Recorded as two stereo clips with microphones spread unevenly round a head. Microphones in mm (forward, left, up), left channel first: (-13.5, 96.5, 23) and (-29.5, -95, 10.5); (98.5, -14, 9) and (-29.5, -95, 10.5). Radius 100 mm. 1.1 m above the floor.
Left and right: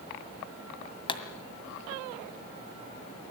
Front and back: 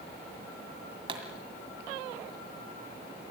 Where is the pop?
150° left, 1.9 m.